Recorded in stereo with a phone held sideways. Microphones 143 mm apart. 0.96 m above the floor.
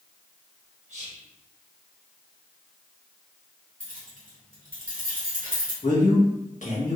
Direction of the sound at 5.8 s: 60° left (ahead or behind).